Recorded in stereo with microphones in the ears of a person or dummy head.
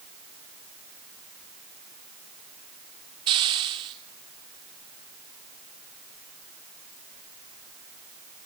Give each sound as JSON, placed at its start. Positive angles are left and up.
{"t": 3.3, "sound": "a hiss", "side_deg": -20, "distance_m": 1.4}